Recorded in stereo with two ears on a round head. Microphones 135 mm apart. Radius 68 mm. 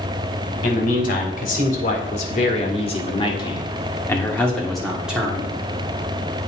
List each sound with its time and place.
0.6 s a man speaking: 65° left (ahead or behind), 2 m; by 5.5 s 15° right (ahead or behind), 1.5 m